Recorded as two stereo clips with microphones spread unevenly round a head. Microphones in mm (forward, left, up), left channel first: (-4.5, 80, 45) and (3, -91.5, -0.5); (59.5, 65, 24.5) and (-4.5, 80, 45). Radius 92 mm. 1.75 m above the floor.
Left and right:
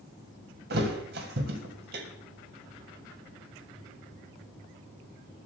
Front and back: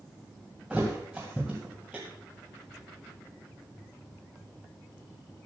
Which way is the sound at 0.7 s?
120° right.